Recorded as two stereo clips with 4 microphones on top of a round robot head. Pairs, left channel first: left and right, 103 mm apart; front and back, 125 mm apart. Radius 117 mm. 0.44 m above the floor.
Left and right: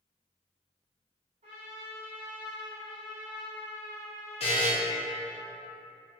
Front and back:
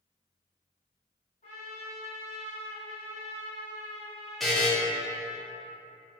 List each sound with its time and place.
1.4 s a trumpet: 50° right, 0.6 m
4.4 s a buzzer: 85° left, 0.7 m